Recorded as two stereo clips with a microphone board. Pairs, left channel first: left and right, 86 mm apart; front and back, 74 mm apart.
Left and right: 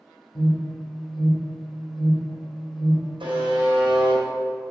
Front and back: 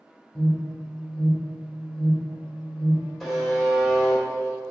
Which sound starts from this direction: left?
An alarm, at 0.3 s.